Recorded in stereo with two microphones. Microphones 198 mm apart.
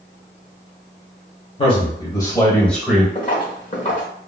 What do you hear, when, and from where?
1.6 s a man speaking: 30° left (ahead or behind), 1.3 m; by 3.0 s 5° right (ahead or behind), 1.2 m
3.1 s footsteps: 35° left (ahead or behind), 1.4 m